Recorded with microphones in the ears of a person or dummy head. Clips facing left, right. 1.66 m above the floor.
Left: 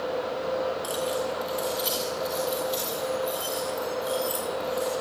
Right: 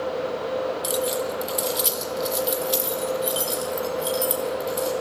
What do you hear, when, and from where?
0.8 s keys jangling: 25° right (ahead or behind), 1.7 m; by 4.9 s 40° right (ahead or behind), 5.5 m